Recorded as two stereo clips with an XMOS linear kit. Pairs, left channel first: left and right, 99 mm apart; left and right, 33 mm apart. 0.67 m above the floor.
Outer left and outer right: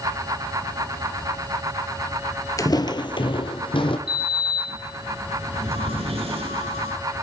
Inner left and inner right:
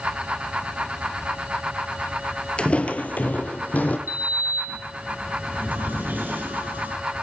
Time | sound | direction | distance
2.6 | footsteps | 35° left (ahead or behind) | 0.7 m
4.1 | a sliding door | 80° right | 2.5 m